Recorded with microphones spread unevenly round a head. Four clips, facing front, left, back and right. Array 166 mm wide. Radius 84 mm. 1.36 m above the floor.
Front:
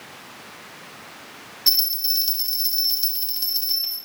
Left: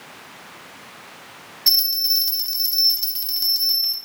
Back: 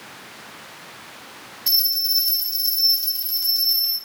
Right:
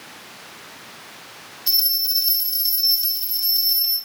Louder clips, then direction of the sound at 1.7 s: Left 3 dB, even; 45° left.